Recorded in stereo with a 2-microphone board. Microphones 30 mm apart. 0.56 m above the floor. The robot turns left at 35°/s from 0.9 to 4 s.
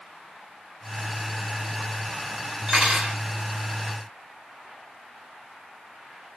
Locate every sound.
2.7 s cutlery clinking: 5° right (ahead or behind), 2.0 m; by 3.2 s 20° right (ahead or behind), 2.0 m